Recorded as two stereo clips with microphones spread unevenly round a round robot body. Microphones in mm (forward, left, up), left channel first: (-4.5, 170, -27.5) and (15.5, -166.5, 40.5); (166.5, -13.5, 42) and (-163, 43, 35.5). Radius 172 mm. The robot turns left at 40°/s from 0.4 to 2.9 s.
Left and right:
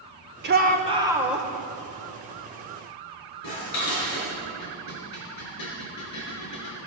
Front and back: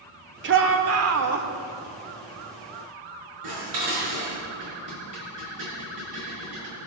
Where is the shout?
150° right, 1.1 m; by 1.5 s 170° left, 1.1 m.